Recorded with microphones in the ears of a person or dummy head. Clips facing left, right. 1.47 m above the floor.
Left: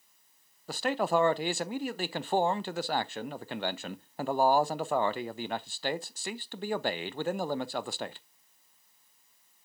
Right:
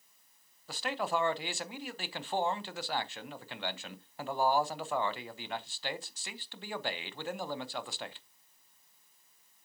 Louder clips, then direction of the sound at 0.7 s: Left 6 dB; 40° left (ahead or behind).